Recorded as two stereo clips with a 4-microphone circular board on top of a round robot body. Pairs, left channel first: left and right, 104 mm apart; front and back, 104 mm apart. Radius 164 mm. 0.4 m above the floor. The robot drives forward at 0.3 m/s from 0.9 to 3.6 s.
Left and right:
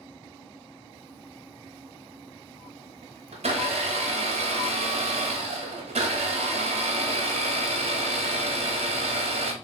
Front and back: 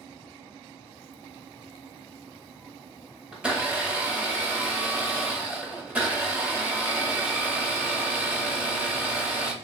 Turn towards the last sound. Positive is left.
turn(degrees=-100)